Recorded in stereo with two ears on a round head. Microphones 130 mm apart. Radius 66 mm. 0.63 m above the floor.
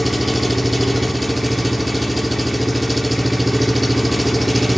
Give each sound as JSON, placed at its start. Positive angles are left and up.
{"t": 0.0, "sound": "an engine running", "side_deg": 0, "distance_m": 0.7}